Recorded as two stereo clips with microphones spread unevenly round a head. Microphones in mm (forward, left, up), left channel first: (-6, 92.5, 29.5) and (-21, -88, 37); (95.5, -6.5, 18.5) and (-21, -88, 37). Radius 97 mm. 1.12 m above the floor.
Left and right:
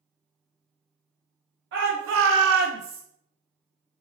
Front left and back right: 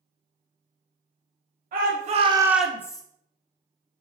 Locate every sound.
1.7 s a shout: 120° right, 0.7 m; by 3.0 s 30° right, 0.6 m